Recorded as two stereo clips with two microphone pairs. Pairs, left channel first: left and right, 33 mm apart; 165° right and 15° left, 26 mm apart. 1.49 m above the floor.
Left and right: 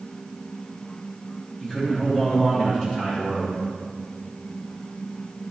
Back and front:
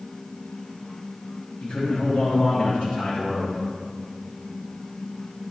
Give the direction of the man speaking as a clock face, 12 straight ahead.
7 o'clock.